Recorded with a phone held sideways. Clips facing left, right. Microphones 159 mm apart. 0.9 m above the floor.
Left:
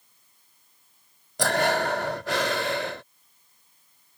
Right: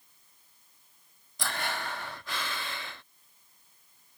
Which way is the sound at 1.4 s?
80° left.